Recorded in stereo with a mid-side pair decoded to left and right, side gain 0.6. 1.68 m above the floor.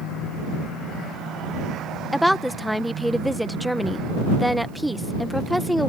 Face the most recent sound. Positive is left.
turn(degrees=0)